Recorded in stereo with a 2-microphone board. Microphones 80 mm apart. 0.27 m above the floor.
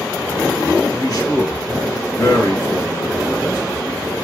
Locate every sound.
0.9 s a man speaking: 45° left (ahead or behind), 2.5 m